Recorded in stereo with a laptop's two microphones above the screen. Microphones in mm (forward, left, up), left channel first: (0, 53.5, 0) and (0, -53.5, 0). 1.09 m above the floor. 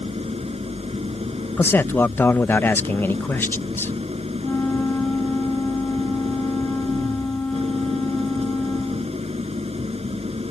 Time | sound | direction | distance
0.0 | an engine running | 75° right (ahead or behind) | ?
1.6 | a man speaking | 20° left (ahead or behind) | ?
4.4 | a flute | 15° left (ahead or behind) | ?